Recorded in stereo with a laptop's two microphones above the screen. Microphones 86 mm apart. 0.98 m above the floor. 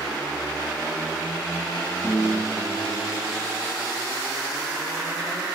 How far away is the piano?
About 1.9 m.